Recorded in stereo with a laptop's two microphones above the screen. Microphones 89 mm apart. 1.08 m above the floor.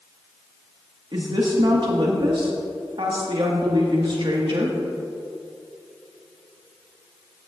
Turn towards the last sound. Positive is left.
turn(degrees=-65)  # may be behind; listen again after turning